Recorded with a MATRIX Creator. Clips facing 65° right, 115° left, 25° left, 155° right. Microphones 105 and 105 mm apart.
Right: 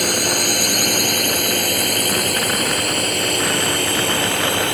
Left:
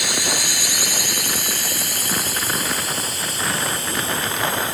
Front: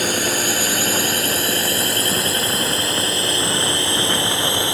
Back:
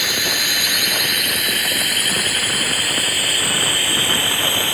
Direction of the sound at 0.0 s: 30° right.